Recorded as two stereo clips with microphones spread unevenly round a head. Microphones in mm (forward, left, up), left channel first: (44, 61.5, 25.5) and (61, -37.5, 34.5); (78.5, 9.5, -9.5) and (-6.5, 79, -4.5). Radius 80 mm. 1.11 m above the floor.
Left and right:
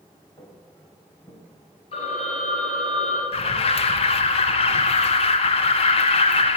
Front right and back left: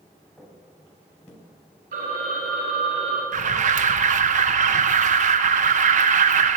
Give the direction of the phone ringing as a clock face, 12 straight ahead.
7 o'clock.